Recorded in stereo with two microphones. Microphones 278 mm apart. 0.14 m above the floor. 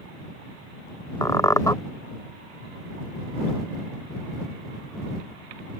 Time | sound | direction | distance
1.2 | a squeak | 10° left (ahead or behind) | ?